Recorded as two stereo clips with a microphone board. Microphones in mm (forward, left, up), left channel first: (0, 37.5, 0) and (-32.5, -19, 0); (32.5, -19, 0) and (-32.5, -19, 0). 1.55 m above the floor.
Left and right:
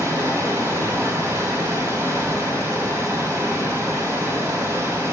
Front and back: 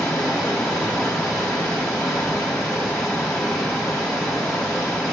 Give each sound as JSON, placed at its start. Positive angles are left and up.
{"t": 0.0, "sound": "running water", "azimuth_deg": -80, "distance_m": 2.5}